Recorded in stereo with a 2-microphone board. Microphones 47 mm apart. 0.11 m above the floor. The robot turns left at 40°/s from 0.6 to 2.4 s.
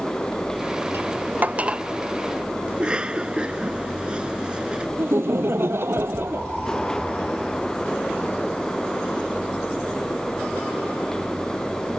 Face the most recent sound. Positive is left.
turn(degrees=-60)  # may be behind; listen again after turning